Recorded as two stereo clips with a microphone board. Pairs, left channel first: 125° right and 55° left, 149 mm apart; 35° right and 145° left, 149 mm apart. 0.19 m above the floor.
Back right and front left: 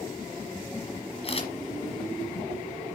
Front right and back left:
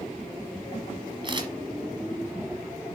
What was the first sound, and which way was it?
A camera shutter, 160° right.